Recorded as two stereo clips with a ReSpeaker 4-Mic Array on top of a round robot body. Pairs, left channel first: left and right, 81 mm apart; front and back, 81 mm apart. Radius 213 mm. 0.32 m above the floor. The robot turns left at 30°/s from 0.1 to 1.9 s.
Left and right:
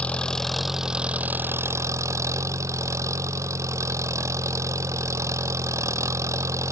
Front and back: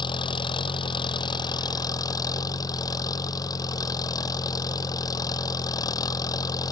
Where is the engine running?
15° left; by 6.7 s 40° right.